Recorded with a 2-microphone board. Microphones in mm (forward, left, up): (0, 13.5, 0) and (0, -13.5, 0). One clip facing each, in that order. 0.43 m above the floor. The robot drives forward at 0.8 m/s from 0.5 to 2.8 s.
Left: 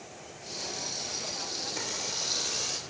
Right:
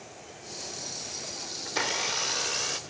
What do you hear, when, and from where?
1.7 s a blender: 45° right (ahead or behind), 0.7 m; by 2.8 s 30° right (ahead or behind), 1.0 m